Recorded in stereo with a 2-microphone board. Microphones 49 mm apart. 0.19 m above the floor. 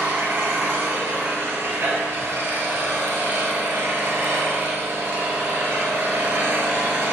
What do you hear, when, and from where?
0.0 s an engine running: 55° right (ahead or behind), 0.7 m